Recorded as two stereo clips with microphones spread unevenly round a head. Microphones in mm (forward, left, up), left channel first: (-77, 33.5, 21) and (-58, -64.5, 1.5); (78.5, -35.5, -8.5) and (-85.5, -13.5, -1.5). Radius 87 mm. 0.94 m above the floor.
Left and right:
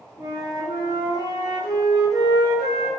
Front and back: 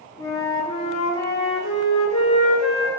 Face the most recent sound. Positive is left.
turn(degrees=50)